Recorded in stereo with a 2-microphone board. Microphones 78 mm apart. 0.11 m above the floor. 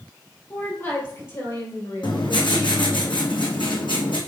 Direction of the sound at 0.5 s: 30° left (ahead or behind).